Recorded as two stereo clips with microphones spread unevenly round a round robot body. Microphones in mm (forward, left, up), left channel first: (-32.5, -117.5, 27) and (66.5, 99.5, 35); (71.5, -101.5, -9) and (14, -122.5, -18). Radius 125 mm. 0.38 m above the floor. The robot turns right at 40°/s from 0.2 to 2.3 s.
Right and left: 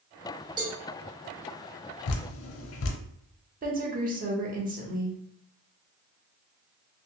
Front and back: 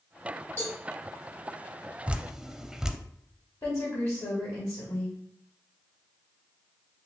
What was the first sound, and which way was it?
A cowbell, 10° left.